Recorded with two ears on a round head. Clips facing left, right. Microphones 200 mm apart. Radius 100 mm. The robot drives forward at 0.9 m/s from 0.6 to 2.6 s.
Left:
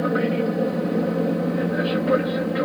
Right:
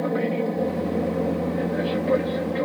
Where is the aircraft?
10° left (ahead or behind).